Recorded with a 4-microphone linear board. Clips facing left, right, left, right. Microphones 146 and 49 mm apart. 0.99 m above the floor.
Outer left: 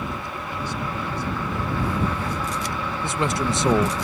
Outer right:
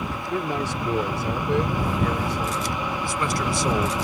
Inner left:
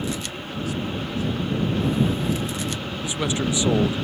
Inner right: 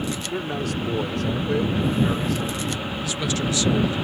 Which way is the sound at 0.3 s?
70° right (ahead or behind).